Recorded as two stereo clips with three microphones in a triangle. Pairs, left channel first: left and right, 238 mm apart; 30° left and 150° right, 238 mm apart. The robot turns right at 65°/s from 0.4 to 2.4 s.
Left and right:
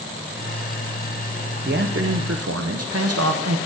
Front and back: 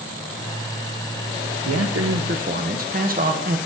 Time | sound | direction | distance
1.6 | a man speaking | 145° right | 0.6 m